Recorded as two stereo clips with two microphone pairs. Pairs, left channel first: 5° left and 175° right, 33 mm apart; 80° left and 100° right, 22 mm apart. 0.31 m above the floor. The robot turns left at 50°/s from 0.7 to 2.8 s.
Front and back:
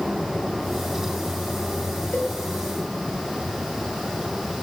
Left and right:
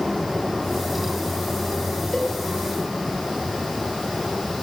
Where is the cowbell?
30° left, 6.5 m; by 2.3 s 25° left, 6.5 m.